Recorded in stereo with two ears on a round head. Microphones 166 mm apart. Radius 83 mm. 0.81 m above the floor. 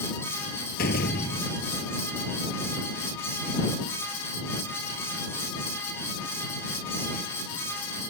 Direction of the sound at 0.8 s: 55° left (ahead or behind).